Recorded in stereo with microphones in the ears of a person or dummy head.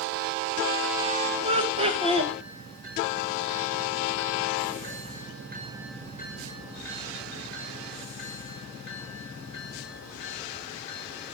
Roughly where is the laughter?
Right.